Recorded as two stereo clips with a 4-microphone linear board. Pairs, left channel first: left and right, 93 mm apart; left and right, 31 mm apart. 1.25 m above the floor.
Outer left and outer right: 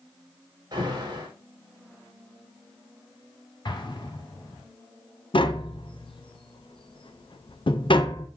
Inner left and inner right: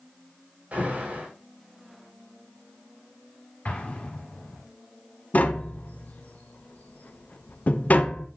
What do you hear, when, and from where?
0.7 s an alarm: 50° right (ahead or behind), 4.5 m
3.6 s an explosion: 55° left (ahead or behind), 1.6 m
5.3 s tapping: 65° left (ahead or behind), 0.8 m